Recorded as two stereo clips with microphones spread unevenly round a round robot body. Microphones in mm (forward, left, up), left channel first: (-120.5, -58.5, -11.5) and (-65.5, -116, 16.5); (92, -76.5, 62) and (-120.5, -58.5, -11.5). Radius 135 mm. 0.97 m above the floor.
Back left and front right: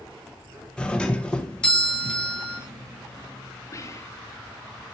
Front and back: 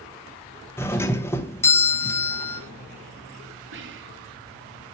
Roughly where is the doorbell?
Left.